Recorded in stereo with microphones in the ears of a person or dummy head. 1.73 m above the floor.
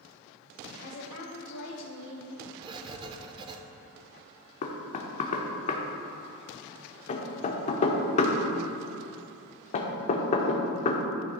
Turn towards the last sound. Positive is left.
turn(degrees=35)  # may be behind; listen again after turning